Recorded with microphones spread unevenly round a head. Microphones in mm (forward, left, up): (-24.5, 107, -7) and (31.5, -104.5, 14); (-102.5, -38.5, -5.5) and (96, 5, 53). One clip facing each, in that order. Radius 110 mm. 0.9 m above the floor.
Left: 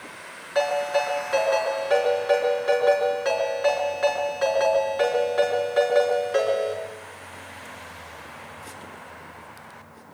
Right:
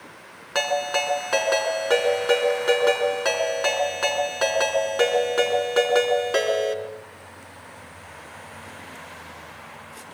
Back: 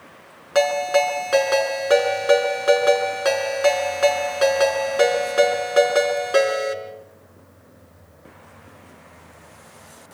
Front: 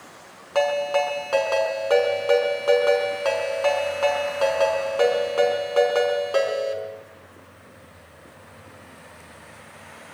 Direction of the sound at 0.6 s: 100° right.